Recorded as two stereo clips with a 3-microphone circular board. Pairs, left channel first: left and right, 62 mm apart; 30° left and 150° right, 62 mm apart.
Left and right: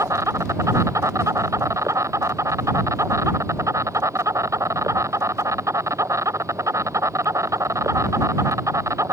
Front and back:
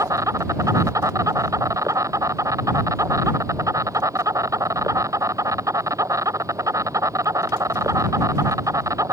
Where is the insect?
125° right.